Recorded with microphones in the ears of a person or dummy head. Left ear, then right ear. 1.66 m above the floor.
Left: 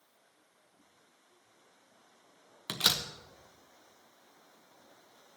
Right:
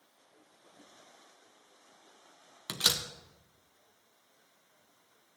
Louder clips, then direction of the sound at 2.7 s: Even; 5° left (ahead or behind).